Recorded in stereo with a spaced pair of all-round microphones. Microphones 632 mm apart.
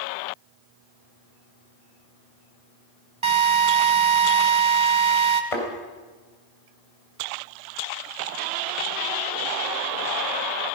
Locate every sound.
3.2 s a drill: 50° right (ahead or behind), 1.2 m
5.5 s a thud: 65° left (ahead or behind), 3.5 m